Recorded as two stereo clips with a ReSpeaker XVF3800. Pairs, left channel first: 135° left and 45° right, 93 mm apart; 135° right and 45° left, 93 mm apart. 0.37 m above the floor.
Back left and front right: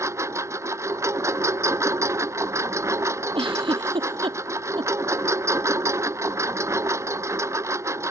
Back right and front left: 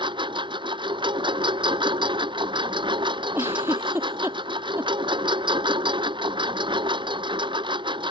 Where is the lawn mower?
15° left.